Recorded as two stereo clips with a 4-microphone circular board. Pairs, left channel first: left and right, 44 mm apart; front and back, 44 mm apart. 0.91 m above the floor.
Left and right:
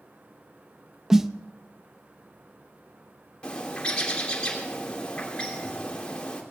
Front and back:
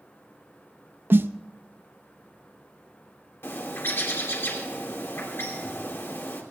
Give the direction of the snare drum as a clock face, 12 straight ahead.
6 o'clock.